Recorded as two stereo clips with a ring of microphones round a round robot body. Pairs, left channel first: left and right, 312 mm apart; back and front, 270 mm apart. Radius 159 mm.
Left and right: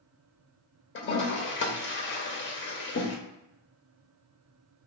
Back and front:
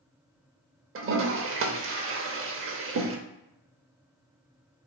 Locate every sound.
0.9 s a toilet flushing: 40° left, 0.7 m